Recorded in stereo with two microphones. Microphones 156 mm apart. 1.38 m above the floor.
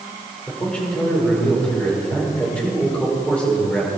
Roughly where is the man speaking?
Centre.